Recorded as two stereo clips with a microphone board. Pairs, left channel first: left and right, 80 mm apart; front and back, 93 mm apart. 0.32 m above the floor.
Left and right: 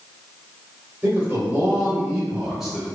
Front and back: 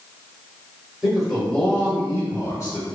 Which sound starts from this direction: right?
A man speaking, at 1.0 s.